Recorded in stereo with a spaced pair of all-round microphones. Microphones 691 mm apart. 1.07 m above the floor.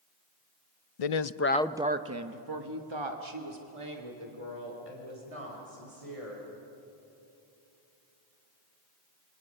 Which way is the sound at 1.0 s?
60° left (ahead or behind).